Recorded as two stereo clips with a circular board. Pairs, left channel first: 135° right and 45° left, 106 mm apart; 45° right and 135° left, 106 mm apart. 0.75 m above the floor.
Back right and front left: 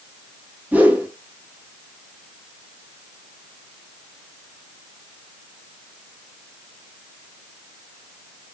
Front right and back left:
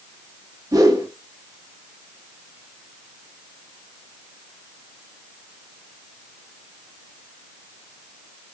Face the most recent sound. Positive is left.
turn(degrees=110)